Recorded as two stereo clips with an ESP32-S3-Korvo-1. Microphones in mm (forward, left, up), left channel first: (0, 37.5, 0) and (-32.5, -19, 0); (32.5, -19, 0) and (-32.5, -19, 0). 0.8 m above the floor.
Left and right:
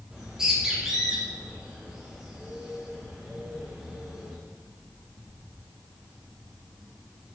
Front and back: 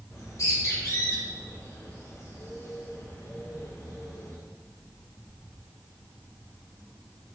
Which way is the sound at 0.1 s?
40° right.